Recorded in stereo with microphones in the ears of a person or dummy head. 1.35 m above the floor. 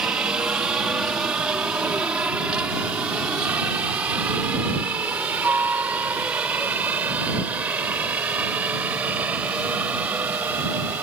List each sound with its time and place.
0.0 s a helicopter: 15° right (ahead or behind); by 11.0 s 20° right (ahead or behind)